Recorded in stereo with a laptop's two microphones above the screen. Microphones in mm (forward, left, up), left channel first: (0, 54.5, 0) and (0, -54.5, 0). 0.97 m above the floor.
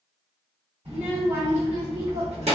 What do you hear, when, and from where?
0.8 s a child speaking: 85° right, 2.0 m; by 2.6 s 75° right (ahead or behind), 1.2 m